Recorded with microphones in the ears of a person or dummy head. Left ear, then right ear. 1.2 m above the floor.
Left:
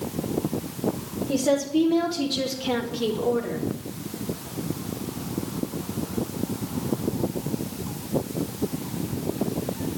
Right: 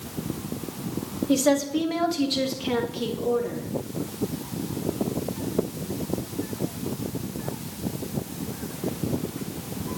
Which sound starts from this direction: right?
A woman speaking, at 1.3 s.